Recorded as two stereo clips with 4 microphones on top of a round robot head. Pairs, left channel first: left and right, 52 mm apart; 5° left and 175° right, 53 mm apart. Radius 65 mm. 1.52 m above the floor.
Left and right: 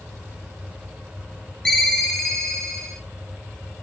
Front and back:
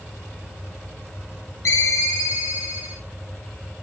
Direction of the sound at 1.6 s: 20° left.